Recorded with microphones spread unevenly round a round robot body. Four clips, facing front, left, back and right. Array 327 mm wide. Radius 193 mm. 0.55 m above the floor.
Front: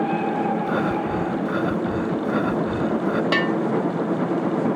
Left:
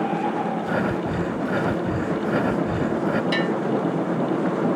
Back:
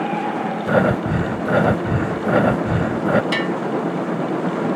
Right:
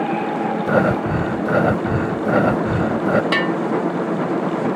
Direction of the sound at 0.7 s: 145° right.